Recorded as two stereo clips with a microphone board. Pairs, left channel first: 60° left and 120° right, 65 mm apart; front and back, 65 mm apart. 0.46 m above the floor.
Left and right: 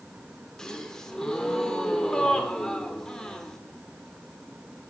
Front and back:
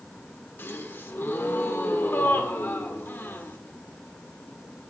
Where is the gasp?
15° right, 1.3 m.